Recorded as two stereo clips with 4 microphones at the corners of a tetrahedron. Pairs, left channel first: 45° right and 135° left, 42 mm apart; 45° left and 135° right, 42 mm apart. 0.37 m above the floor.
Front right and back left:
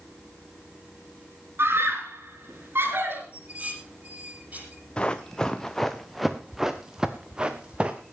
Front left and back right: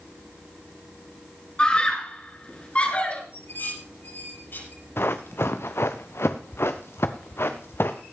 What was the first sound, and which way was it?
A scream, 110° left.